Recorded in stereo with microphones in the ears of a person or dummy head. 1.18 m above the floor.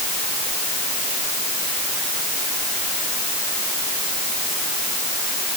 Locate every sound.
Only background noise.